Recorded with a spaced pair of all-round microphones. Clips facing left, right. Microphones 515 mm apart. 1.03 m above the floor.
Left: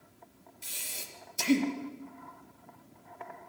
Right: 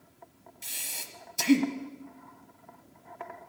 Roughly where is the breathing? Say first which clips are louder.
Left 1 dB; centre.